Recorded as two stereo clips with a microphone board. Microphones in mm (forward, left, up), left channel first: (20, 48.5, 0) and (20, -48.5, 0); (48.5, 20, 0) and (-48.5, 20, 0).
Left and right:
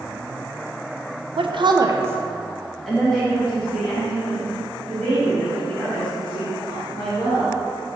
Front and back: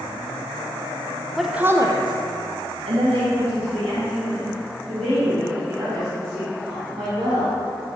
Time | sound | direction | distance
1.4 | a woman speaking | 90° right | 0.6 m